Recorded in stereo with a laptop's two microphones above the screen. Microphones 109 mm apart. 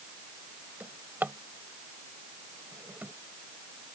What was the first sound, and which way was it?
A drawer, 15° right (ahead or behind).